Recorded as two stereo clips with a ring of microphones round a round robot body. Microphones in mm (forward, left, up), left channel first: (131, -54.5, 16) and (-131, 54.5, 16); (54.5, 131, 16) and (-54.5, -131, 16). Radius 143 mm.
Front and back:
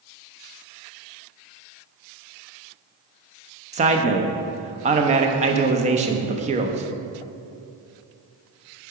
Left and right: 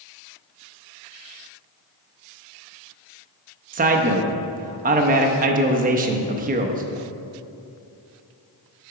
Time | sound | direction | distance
3.7 | a man speaking | 155° right | 0.7 m